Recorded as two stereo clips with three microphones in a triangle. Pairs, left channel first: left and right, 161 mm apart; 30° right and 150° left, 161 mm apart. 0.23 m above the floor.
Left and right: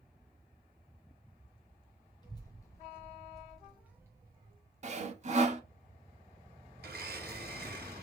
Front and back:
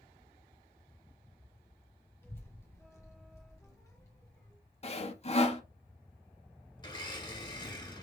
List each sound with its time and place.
2.2 s a child speaking: 40° left, 1.4 m; by 4.6 s 80° right, 1.1 m
4.8 s sawing: 65° right, 0.6 m
6.8 s a blender: 95° right, 1.2 m